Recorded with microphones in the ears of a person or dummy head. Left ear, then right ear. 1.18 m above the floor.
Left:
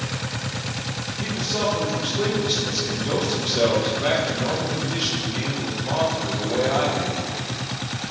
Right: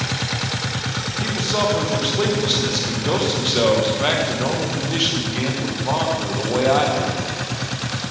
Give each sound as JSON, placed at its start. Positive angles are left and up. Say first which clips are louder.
{"t": 1.2, "sound": "a man speaking", "louder": "right 3 dB", "side_deg": -25, "distance_m": 0.9}